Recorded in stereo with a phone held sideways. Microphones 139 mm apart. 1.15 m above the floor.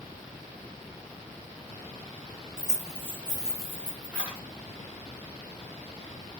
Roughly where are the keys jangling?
Right.